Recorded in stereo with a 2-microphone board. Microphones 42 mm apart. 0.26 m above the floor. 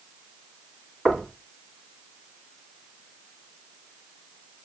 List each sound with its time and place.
1.1 s knocking: 5° left (ahead or behind), 1.6 m